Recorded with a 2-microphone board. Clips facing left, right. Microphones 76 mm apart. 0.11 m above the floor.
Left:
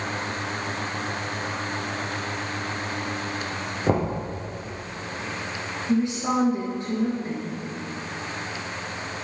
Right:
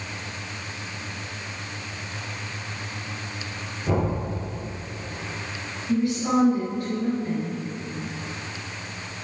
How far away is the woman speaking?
About 2 m.